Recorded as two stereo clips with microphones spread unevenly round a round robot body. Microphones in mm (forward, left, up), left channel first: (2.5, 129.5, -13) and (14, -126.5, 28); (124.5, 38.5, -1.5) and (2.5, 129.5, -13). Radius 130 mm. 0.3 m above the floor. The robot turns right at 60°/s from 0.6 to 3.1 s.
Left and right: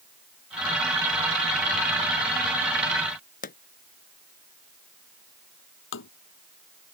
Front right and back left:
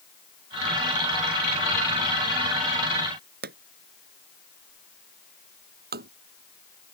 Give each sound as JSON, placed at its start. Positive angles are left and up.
{"t": 3.4, "sound": "a pop", "azimuth_deg": 150}
{"t": 5.9, "sound": "tapping", "azimuth_deg": 135}